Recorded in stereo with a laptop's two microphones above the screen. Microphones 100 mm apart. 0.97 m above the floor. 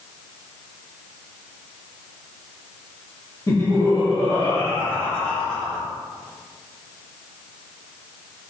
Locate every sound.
3.5 s laughter: 40° left (ahead or behind), 2 m; by 5.8 s 5° left (ahead or behind), 3.5 m